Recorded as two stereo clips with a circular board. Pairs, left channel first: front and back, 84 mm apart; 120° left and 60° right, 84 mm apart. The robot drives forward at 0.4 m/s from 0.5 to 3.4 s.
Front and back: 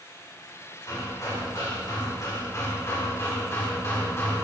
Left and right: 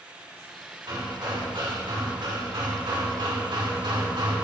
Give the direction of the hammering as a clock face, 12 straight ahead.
1 o'clock.